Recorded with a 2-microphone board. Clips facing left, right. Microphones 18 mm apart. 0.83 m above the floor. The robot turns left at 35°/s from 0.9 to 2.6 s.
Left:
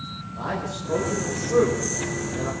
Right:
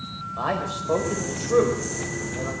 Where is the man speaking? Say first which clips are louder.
Right 3 dB; 50° right (ahead or behind), 4.5 m; by 2.5 s 5° left (ahead or behind), 4.5 m.